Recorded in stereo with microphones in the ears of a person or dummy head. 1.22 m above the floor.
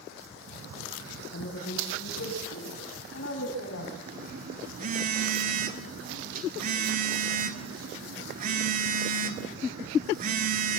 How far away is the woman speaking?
About 8.5 m.